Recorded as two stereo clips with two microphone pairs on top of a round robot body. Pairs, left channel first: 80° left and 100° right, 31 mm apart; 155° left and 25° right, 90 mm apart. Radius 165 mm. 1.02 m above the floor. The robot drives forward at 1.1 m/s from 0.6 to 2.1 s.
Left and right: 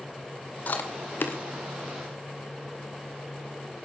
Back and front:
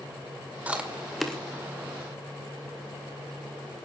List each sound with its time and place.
0.7 s chewing: 55° left, 2 m; by 1.4 s 75° left, 1.7 m